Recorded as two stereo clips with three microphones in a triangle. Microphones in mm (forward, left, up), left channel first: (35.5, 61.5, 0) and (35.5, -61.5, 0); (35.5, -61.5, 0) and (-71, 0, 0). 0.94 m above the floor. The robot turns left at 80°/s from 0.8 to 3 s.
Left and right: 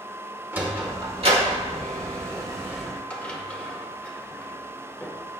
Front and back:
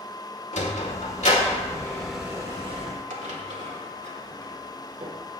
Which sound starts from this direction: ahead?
A sliding door, at 0.5 s.